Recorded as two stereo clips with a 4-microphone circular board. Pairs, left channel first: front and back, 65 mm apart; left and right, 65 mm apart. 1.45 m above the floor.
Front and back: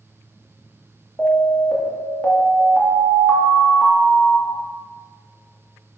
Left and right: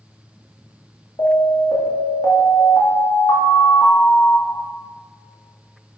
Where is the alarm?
75° left, 3 m.